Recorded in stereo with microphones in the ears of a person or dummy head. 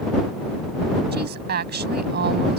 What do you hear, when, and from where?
1.1 s a woman speaking: 50° right (ahead or behind)